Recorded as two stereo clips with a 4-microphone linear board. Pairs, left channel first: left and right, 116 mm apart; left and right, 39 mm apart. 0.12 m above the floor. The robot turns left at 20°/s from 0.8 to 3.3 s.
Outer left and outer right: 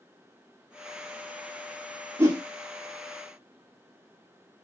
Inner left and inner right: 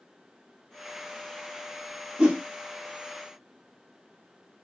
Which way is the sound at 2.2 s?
20° right (ahead or behind).